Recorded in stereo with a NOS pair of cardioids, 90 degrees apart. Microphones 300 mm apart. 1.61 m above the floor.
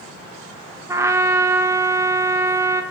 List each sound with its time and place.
0.9 s a trumpet: 10° right, 0.9 m